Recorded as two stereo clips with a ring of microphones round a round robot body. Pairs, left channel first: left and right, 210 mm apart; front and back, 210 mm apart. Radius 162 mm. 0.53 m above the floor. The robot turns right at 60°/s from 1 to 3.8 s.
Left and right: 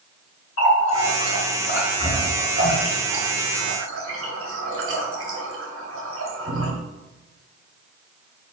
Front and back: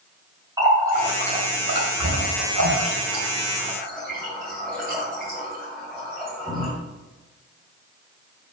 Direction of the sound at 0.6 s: 105° left.